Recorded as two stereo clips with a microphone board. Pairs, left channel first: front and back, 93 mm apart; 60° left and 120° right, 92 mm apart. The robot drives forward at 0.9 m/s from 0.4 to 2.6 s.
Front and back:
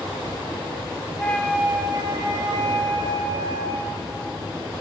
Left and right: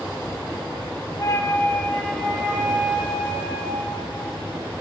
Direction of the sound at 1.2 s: 60° left.